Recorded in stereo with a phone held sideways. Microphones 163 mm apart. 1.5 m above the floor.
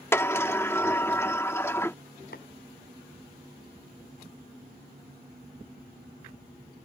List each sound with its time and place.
0.1 s a sliding door: 15° left (ahead or behind)
2.3 s tapping: 80° left